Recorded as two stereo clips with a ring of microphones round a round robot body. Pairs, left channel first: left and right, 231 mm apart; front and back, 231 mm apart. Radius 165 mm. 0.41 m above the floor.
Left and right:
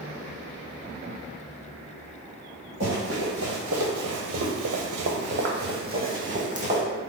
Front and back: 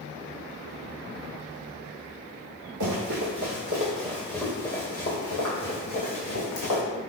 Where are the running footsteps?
150° right, 1.2 m; by 6.8 s 30° right, 1.7 m.